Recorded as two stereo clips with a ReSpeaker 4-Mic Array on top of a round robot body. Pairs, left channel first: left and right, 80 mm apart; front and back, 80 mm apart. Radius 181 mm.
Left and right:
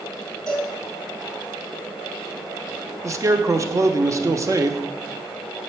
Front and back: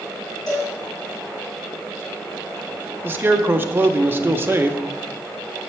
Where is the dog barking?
I don't hear a dog barking.